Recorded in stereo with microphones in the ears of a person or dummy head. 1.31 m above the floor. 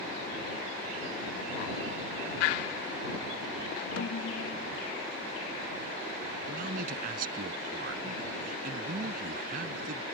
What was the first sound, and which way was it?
A snare drum, 70° left (ahead or behind).